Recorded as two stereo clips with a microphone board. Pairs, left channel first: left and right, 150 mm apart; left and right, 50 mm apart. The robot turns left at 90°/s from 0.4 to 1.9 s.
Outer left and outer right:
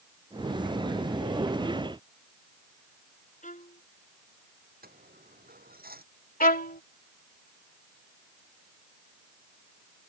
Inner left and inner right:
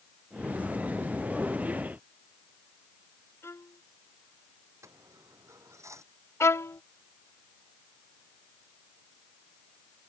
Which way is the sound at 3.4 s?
60° left (ahead or behind).